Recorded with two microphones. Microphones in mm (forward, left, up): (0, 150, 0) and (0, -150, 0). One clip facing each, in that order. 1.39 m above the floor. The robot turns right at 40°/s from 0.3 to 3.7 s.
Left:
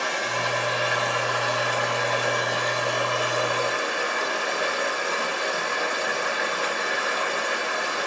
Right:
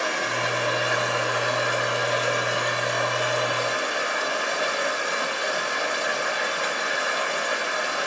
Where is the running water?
90° right, 1.8 m; by 8.1 s 50° left, 1.8 m.